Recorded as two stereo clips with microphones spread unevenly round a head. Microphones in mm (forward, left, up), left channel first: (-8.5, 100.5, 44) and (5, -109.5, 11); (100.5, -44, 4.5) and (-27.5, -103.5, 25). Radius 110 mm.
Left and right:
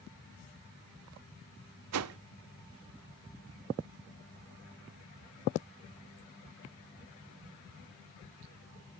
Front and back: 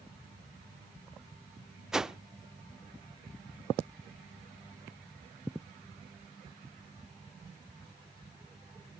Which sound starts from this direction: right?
A whoosh, at 1.9 s.